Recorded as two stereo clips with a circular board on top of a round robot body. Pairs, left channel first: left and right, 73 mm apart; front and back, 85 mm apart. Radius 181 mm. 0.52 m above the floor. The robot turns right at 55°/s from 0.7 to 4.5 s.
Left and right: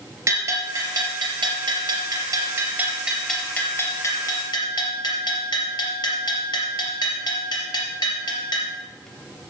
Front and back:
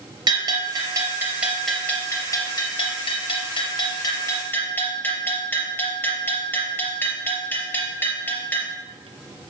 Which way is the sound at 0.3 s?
145° right.